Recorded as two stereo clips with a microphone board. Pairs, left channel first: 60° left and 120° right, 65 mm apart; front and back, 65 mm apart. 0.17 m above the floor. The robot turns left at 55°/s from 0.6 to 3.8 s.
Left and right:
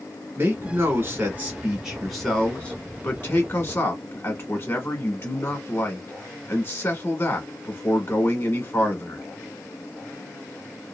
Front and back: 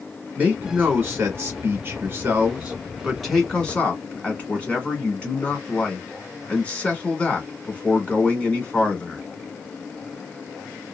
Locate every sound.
0.4 s a man speaking: 125° right, 1.4 m; by 9.2 s 55° left, 1.4 m